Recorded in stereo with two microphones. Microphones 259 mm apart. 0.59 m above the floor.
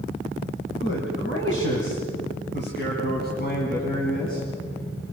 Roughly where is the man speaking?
Left.